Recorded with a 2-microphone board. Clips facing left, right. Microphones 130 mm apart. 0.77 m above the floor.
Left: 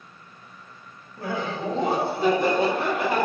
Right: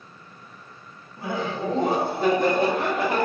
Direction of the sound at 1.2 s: 25° right (ahead or behind).